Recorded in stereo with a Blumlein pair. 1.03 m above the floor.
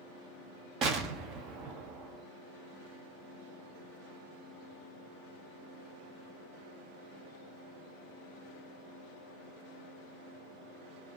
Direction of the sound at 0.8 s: 30° right.